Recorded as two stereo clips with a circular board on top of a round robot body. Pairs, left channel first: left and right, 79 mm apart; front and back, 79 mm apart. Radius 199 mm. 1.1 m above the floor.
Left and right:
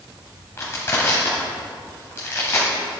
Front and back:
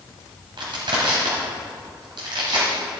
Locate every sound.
0.6 s crushing: 150° left, 1.4 m